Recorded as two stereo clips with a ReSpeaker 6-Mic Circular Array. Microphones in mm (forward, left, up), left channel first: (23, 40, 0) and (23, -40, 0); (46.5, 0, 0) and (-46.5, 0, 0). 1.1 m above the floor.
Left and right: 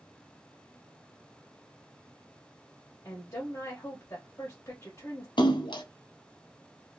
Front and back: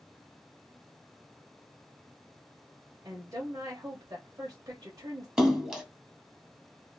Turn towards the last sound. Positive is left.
turn(degrees=95)